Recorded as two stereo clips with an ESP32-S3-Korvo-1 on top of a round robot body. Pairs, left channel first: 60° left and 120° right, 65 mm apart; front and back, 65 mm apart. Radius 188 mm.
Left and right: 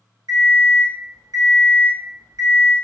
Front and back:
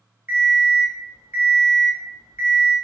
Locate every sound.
0.3 s an alarm clock: 125° right, 1.2 m